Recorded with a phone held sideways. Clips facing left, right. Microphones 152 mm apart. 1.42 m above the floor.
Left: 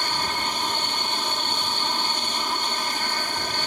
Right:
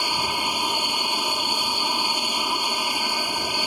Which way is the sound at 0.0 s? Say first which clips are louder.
Right 1 dB; 10° right (ahead or behind).